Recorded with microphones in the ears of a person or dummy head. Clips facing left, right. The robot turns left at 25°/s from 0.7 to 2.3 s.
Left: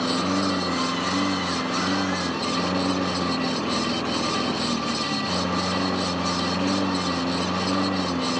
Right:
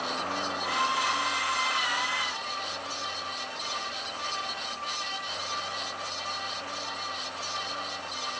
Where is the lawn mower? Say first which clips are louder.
Left 11 dB; 130° left; by 8.4 s 90° left.